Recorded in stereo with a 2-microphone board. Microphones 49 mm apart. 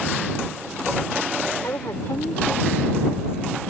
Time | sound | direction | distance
1.6 | a woman speaking | 85° left | ?